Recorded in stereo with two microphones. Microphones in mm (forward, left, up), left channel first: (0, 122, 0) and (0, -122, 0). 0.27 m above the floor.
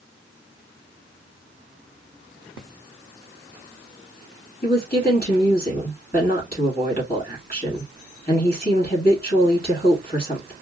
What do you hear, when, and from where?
4.6 s a woman speaking: 40° left (ahead or behind), 3 m